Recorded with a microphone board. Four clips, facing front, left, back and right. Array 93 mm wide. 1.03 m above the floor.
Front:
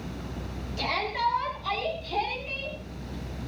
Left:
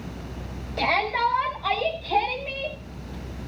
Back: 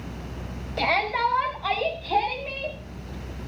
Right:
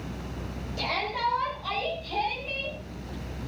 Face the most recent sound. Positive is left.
turn(degrees=145)